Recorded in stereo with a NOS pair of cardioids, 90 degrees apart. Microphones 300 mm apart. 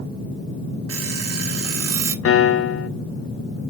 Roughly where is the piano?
Ahead left.